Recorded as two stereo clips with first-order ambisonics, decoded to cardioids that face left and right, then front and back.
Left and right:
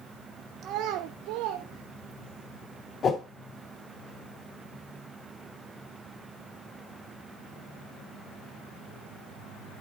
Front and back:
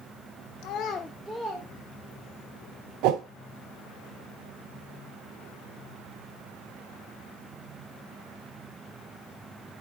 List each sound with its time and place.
0.6 s a child speaking: 30° right, 0.6 m; by 2.4 s 120° right, 1.8 m
3.0 s a whoosh: 155° left, 0.8 m